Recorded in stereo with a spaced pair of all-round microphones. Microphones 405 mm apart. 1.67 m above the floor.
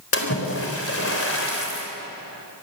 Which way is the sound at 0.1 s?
30° left (ahead or behind).